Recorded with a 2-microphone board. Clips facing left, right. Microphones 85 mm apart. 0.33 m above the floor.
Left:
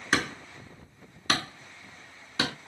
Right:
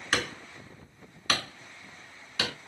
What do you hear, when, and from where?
0.1 s hammering: 35° left (ahead or behind), 2.5 m